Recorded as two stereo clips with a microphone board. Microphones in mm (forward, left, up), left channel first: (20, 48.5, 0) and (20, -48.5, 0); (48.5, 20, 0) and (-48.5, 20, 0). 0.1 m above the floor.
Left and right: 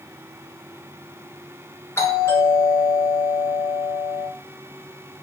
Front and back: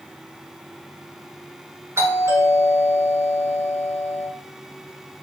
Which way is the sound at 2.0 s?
135° left.